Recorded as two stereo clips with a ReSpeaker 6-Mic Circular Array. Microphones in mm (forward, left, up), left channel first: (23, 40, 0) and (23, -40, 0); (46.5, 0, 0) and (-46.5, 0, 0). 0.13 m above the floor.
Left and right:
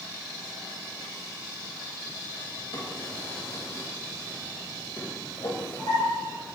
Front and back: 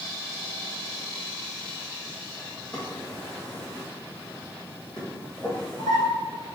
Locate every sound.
2.7 s a drawer: 80° left, 1.7 m